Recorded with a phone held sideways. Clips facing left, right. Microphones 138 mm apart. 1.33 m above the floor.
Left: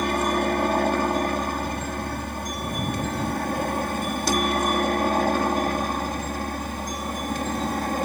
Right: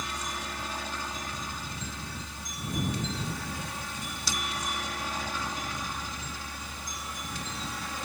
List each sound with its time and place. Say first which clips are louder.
0.0 s a helicopter: left 15 dB; 60° left (ahead or behind); by 8.1 s 55° left (ahead or behind)